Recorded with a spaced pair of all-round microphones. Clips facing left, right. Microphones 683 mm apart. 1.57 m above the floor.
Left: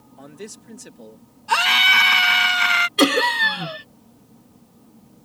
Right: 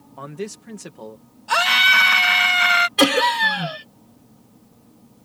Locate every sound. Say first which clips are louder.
0.2 s a man speaking: right 7 dB; 80° right
1.5 s a scream: right 1 dB; 15° right (ahead or behind)
3.0 s laughter: even; 25° right (ahead or behind)